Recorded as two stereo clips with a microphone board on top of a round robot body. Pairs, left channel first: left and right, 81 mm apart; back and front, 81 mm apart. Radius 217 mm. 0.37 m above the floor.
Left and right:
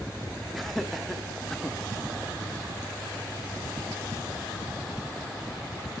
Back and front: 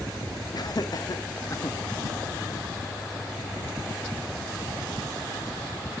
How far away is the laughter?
About 1.6 m.